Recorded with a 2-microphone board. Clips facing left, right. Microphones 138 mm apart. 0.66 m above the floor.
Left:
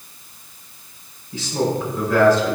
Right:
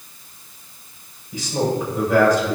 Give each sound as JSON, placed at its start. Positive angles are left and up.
{"t": 1.3, "sound": "a man speaking", "side_deg": -15, "distance_m": 3.0}